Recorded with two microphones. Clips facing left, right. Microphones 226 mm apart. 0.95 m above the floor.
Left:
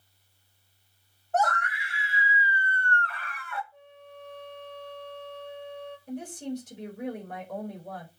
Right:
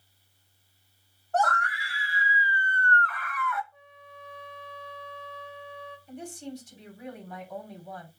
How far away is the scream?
About 2.5 m.